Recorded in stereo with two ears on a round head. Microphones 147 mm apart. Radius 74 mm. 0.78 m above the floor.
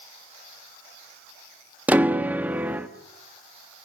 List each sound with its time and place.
1.9 s a piano: 10° right (ahead or behind), 1.0 m